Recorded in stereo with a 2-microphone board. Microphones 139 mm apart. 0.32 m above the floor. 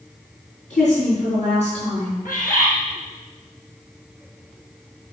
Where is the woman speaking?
55° left (ahead or behind), 4.5 m.